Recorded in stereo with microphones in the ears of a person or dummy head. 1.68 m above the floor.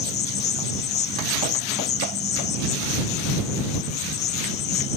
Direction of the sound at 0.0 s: 40° left (ahead or behind).